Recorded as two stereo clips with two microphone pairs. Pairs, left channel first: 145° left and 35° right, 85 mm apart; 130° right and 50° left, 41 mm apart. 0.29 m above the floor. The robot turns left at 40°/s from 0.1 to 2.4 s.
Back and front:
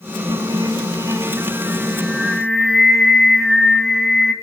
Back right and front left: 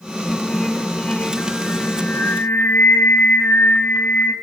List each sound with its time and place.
0.3 s singing: 40° right, 1.4 m; by 4.3 s 125° right, 1.4 m